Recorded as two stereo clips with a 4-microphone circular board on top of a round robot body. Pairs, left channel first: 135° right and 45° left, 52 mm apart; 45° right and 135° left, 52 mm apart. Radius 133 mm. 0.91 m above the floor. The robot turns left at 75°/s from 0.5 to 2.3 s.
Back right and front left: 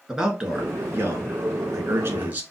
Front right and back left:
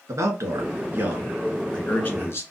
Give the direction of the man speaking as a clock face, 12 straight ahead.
8 o'clock.